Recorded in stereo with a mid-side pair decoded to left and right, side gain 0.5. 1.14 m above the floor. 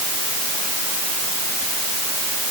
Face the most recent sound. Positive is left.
No sound to turn to.